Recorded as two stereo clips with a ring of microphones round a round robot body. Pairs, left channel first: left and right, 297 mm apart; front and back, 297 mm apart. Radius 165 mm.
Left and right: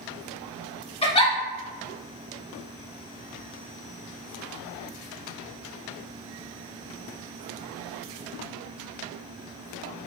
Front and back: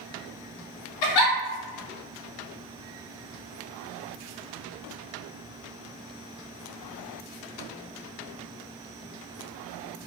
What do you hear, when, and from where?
1.0 s a giggle: 20° left, 0.6 m